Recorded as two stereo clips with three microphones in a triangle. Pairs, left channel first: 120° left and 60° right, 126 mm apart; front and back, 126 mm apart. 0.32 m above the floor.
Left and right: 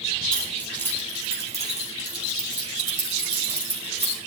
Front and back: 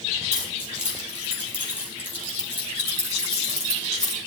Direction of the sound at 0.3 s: 155° right.